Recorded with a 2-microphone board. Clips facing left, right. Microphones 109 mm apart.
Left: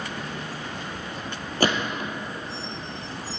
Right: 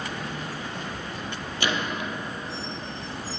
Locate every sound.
1.6 s a gunshot: 45° left (ahead or behind), 0.9 m